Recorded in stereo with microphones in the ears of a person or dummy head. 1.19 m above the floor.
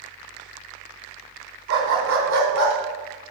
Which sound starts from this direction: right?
A dog barking, at 1.7 s.